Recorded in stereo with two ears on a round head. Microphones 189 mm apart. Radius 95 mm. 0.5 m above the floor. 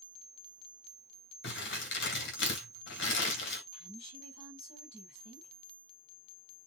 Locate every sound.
1.4 s crumpling: 60° left (ahead or behind), 2.5 m
3.7 s a woman speaking: 30° left (ahead or behind), 3.5 m